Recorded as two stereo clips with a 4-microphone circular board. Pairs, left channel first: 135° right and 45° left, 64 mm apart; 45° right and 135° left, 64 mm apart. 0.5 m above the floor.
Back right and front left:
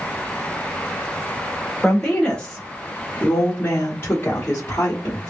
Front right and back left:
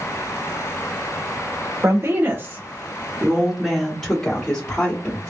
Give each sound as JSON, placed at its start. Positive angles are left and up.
{"t": 1.8, "sound": "a woman speaking", "azimuth_deg": 150, "distance_m": 1.4}